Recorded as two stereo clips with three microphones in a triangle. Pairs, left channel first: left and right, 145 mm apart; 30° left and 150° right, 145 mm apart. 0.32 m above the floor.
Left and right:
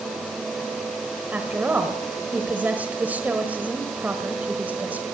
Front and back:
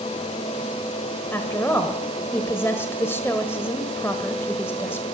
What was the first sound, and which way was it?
A woman speaking, 25° right.